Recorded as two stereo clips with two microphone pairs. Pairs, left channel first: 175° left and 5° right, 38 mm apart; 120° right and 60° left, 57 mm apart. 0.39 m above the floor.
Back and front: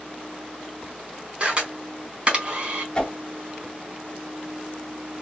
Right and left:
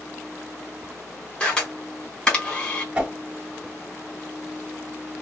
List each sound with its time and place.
1.4 s a camera shutter: 50° right, 1.2 m
3.0 s a whoosh: 120° left, 1.1 m